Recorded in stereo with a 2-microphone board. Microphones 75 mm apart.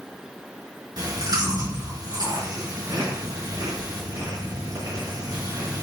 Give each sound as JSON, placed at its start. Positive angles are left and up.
{"t": 1.0, "sound": "chewing", "side_deg": -65, "distance_m": 5.5}